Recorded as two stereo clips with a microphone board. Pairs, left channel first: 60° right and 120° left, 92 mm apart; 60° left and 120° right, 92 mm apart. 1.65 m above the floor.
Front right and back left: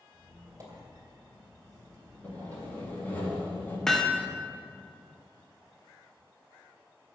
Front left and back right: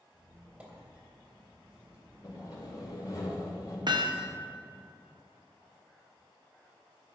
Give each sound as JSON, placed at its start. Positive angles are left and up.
{"t": 0.1, "sound": "a squeak", "azimuth_deg": 170, "distance_m": 2.5}
{"t": 2.2, "sound": "sawing", "azimuth_deg": 10, "distance_m": 2.5}
{"t": 3.9, "sound": "hammering", "azimuth_deg": -145, "distance_m": 0.8}